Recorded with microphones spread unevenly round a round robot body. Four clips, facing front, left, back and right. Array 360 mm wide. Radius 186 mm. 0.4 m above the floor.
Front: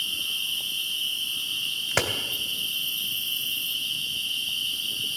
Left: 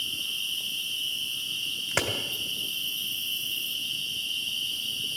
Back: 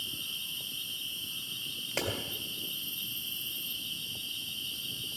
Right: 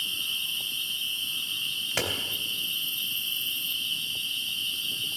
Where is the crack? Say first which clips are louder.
Left 2 dB, front 7 dB; 10° left, 2.0 m.